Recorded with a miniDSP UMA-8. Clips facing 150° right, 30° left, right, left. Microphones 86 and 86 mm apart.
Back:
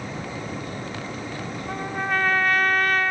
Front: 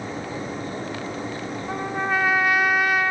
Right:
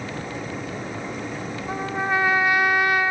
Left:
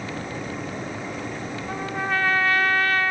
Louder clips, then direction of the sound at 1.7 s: Front 2 dB, right 2 dB; 40° right.